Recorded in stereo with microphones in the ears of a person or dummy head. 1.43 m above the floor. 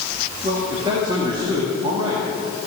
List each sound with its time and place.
0.4 s a man speaking: 30° right (ahead or behind), 2 m